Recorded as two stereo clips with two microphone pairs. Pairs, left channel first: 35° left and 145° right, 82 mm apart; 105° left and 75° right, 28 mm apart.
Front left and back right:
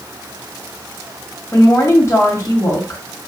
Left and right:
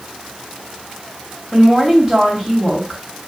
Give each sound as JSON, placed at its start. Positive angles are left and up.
{"t": 1.5, "sound": "a woman speaking", "azimuth_deg": -5, "distance_m": 1.7}